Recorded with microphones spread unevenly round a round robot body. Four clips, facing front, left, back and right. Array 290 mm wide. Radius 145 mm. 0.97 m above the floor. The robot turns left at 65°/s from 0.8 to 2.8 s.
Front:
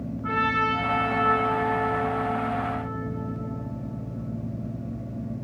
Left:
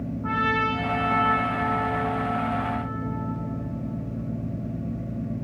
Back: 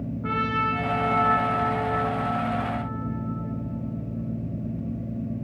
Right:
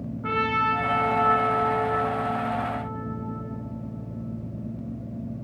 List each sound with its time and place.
0.2 s a trumpet: 135° right, 4.5 m; by 3.4 s 95° left, 4.5 m